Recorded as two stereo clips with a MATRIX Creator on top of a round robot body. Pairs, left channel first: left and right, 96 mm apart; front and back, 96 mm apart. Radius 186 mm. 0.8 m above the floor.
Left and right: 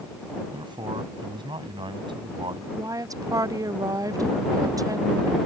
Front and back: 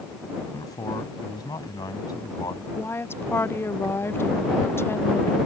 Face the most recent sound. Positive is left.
turn(degrees=-55)